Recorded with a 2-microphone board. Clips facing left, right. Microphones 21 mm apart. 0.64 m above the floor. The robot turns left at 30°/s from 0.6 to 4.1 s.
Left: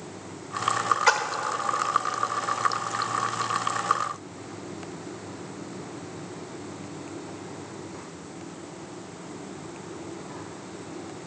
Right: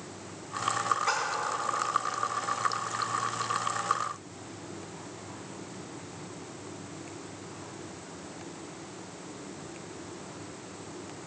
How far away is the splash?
About 1.5 m.